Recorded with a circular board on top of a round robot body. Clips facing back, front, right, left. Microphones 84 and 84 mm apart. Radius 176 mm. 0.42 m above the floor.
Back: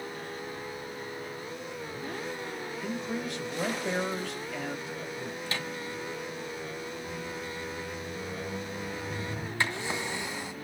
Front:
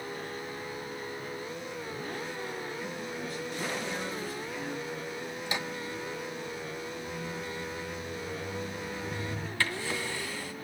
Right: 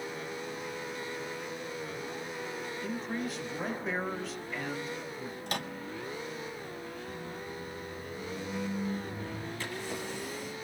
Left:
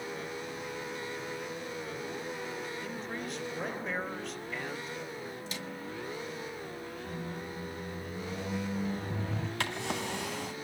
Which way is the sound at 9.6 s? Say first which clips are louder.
Back 1 dB, left 4 dB; 110° left.